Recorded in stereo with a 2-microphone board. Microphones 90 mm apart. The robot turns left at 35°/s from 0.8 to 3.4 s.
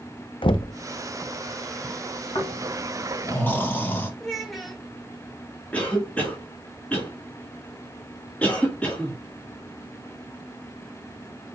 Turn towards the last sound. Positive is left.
turn(degrees=15)  # may be behind; listen again after turning